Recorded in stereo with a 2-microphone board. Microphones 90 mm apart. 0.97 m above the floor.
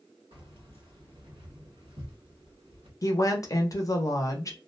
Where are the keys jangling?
70° right (ahead or behind), 1.4 m.